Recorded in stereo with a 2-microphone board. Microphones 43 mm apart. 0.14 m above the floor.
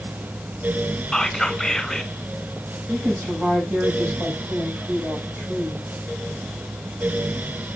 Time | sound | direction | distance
1.1 | whispering | 15° left (ahead or behind) | 1.0 m
2.9 | a woman speaking | 55° right (ahead or behind) | 6 m